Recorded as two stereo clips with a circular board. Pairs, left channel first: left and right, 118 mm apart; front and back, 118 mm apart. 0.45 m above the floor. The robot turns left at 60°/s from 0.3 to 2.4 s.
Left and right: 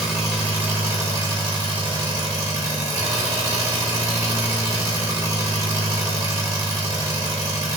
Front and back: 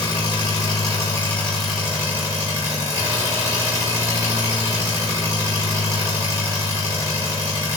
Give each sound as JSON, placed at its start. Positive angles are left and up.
{"t": 0.0, "sound": "an engine running", "azimuth_deg": -5, "distance_m": 0.8}